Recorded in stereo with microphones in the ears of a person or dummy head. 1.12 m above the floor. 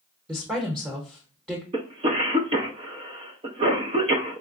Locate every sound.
0.3 s a woman speaking: 10° right (ahead or behind), 0.8 m
1.7 s a cough: 25° right (ahead or behind), 0.5 m